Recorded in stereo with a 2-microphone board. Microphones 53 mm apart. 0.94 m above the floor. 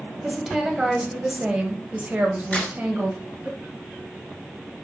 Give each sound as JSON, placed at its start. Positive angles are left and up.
{"t": 0.2, "sound": "a woman speaking", "side_deg": -5, "distance_m": 1.4}
{"t": 2.5, "sound": "a crack", "side_deg": 25, "distance_m": 3.5}